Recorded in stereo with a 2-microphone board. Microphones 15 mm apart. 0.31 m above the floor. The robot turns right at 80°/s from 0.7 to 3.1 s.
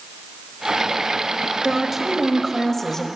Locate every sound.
1.6 s a woman speaking: 65° right, 1.1 m; by 3.1 s 50° left, 1.1 m